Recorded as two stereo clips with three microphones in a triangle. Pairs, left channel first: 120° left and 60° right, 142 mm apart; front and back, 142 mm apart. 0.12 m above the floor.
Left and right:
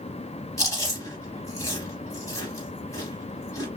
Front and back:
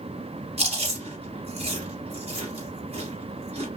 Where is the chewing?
175° left, 2 m.